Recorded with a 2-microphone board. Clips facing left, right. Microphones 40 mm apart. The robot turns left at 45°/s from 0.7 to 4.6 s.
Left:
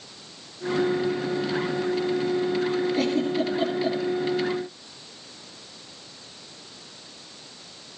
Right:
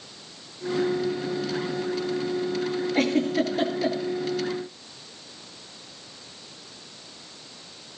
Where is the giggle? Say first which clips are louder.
Right 1 dB; 55° right (ahead or behind), 8 m; by 4.0 s 75° right (ahead or behind), 8 m.